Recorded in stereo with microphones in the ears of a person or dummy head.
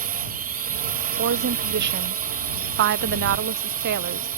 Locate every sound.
0.0 s a drone: 45° right (ahead or behind)
1.2 s a woman speaking: 60° right (ahead or behind)